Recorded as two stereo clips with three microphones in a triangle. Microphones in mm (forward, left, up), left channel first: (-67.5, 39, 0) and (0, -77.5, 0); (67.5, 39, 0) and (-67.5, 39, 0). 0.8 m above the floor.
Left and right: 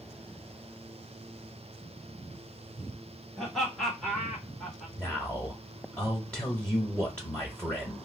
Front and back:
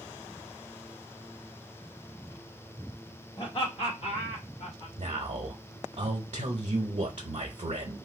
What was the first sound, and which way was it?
Laughter, 30° left.